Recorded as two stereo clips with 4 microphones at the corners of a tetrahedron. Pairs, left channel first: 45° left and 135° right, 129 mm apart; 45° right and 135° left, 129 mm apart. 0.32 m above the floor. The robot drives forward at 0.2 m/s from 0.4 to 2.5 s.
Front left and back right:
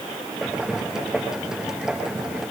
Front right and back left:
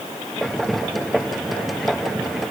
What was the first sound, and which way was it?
Only background noise.